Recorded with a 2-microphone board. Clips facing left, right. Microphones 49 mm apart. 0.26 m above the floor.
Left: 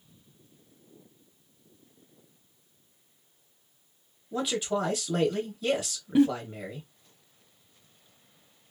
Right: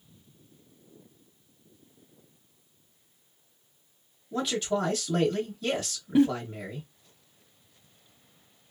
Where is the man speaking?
10° left (ahead or behind), 0.9 m.